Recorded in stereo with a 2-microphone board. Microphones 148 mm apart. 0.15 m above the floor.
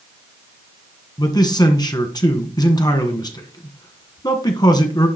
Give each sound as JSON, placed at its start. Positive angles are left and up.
{"t": 1.2, "sound": "a man speaking", "side_deg": 30, "distance_m": 1.5}